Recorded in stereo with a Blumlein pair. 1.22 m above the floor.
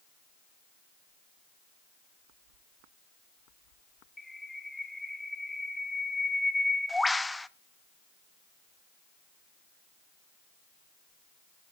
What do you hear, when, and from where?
4.2 s a bird: 5° left, 0.7 m